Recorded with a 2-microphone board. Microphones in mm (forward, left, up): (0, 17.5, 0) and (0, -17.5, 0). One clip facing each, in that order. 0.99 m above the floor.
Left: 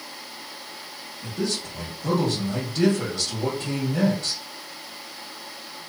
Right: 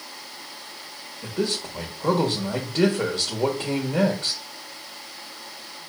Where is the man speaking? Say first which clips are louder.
Right 2 dB; 45° right (ahead or behind), 1.4 m.